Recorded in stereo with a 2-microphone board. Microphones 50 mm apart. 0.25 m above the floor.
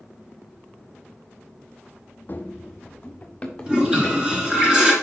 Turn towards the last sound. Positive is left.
turn(degrees=-20)  # may be behind; listen again after turning